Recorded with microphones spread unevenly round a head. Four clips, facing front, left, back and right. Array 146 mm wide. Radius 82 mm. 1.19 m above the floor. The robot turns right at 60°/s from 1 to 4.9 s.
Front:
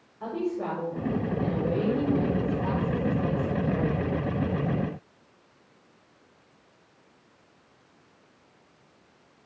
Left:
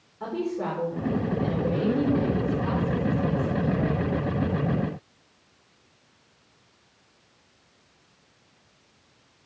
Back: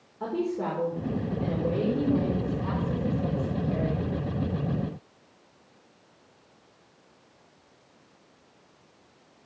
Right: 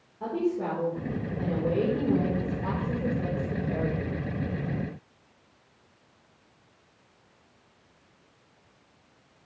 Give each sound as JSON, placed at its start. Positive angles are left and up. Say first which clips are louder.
{"t": 0.2, "sound": "a woman speaking", "louder": "right 1 dB, back 1 dB", "azimuth_deg": -175, "distance_m": 5.0}